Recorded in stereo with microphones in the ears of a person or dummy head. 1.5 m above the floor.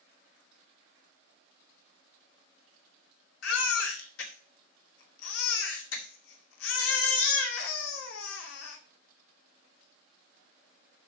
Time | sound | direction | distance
3.4 | a baby crying | 70° left (ahead or behind) | 2 m